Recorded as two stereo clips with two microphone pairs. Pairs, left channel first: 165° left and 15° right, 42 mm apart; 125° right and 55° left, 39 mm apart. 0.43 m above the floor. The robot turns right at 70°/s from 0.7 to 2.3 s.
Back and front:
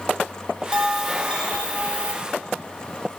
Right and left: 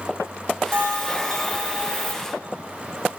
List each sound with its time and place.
0.7 s a bell: 55° left, 0.9 m; by 2.1 s 150° left, 0.9 m